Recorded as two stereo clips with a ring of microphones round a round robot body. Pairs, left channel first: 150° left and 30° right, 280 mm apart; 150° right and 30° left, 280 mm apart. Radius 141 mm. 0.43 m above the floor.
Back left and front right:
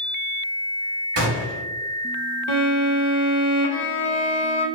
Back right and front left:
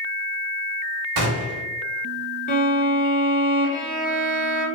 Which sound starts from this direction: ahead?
A gunshot, at 1.2 s.